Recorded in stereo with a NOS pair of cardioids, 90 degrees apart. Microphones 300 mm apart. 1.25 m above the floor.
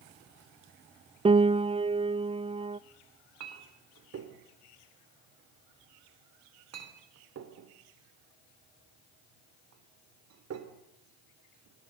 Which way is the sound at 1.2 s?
20° right.